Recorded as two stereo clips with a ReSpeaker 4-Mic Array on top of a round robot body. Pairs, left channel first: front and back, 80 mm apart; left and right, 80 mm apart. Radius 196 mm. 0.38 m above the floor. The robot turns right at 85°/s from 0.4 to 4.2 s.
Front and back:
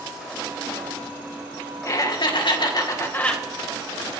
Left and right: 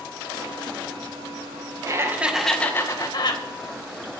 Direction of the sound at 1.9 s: 50° right.